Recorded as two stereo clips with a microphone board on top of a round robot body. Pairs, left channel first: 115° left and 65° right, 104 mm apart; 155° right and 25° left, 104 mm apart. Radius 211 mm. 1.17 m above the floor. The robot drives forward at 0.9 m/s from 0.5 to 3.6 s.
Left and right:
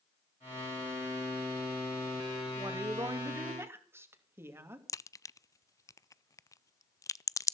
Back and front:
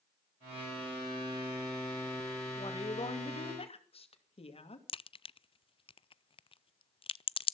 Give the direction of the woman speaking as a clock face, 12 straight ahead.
4 o'clock.